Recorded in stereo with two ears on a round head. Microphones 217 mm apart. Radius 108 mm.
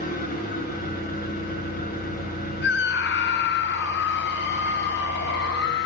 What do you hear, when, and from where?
0.0 s an engine running: 40° left (ahead or behind), 8 m
2.6 s a scream: 45° left (ahead or behind), 1.2 m